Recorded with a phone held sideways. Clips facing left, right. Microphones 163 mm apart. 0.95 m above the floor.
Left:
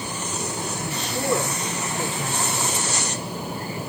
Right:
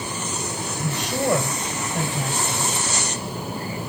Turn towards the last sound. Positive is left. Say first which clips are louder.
# right 7 dB
turn(degrees=-75)  # may be behind; listen again after turning